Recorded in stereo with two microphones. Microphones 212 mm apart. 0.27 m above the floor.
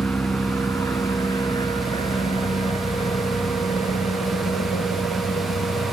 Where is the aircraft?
5° left (ahead or behind); by 5.9 s 40° left (ahead or behind).